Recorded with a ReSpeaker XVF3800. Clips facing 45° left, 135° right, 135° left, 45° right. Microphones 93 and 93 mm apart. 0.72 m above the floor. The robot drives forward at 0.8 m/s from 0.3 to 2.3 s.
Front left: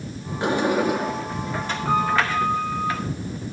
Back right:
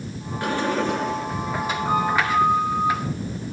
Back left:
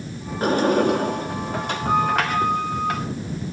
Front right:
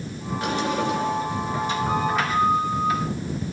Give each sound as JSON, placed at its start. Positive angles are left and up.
{"t": 0.4, "sound": "a sliding door", "azimuth_deg": 105, "distance_m": 1.3}